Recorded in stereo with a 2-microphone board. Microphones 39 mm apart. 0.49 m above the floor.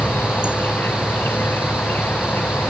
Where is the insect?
70° left (ahead or behind).